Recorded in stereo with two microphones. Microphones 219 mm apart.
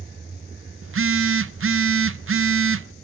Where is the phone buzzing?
70° right (ahead or behind), 0.5 m.